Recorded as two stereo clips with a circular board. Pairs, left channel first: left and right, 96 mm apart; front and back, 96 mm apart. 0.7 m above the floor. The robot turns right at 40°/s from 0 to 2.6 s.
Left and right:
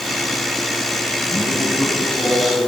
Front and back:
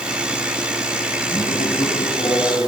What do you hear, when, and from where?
1.3 s a man speaking: 15° right, 6.5 m; by 2.7 s 40° left, 6.5 m